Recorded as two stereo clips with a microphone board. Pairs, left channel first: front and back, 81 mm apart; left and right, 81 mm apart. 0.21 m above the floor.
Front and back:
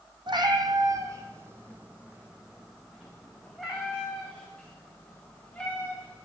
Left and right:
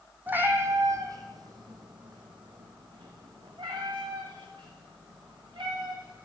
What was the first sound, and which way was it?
A cat meowing, 155° right.